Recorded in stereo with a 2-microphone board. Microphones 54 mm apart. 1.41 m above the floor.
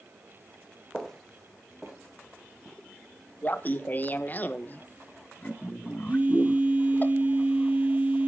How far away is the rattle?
I don't hear a rattle.